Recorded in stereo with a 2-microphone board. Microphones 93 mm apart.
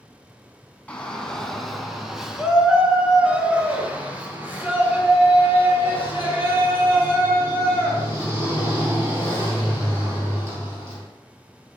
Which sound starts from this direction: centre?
A shout, at 0.9 s.